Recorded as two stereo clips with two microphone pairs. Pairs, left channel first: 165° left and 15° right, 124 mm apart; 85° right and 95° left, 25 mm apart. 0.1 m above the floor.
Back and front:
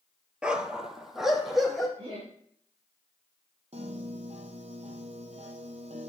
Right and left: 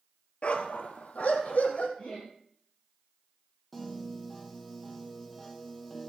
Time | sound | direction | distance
0.4 | a dog barking | 90° right | 0.7 m
2.0 | laughter | 50° right | 5.5 m
3.7 | a piano | 5° left | 0.9 m